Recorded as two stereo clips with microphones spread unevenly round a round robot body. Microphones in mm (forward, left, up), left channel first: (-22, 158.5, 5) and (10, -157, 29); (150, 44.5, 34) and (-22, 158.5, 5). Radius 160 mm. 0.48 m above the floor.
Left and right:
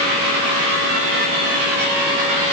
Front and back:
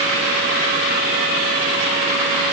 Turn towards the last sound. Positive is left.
No sound to turn to.